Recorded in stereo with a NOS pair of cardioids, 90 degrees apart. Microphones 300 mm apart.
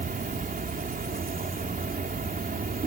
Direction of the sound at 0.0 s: 30° right.